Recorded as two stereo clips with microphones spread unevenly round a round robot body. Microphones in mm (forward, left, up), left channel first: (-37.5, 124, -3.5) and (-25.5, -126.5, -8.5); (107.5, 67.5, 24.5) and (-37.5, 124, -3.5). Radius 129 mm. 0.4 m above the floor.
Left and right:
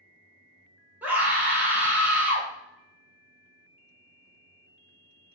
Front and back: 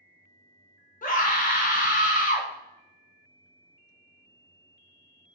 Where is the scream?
5° right, 1.4 m.